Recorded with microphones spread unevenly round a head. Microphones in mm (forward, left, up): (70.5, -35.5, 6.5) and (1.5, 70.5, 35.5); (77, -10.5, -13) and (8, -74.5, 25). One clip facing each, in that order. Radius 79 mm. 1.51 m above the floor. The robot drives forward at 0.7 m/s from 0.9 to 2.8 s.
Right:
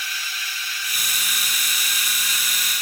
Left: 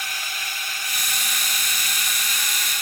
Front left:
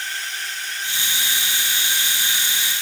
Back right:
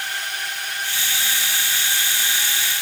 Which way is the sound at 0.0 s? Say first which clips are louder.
Left 1 dB, back right 2 dB; 170° left.